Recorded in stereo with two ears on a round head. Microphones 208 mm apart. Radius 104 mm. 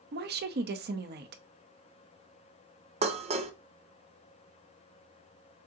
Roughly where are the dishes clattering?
Right.